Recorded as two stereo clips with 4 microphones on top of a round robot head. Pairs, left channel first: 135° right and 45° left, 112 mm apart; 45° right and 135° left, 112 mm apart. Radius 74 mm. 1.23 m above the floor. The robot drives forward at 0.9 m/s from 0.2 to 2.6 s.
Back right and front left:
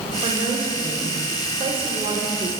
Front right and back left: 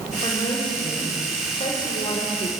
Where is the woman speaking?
5° left, 7 m.